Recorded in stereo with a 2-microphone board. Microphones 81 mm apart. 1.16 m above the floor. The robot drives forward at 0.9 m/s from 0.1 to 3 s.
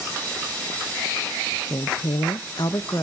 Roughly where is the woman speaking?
Left.